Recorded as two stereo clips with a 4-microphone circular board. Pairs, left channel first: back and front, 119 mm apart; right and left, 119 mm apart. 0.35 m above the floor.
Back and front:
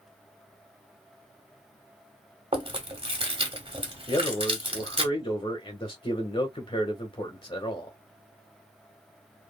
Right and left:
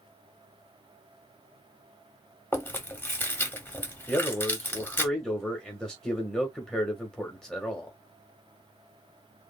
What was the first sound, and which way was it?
Chewing, 20° right.